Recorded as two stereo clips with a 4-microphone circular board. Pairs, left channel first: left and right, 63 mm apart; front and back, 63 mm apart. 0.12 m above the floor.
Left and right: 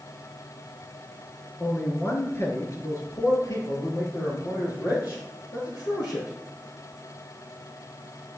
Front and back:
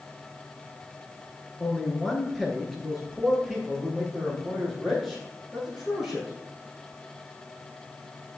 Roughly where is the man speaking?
Left.